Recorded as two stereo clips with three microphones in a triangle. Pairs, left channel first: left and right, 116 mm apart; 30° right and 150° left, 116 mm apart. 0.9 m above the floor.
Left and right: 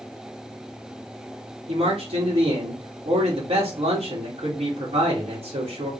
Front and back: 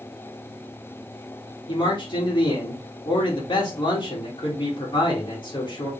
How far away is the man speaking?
About 1.8 m.